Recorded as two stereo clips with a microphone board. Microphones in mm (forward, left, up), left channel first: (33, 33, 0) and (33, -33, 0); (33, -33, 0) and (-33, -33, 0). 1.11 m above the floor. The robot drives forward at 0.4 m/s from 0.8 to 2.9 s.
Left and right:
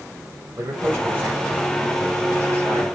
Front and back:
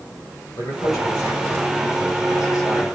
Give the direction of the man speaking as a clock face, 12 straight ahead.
1 o'clock.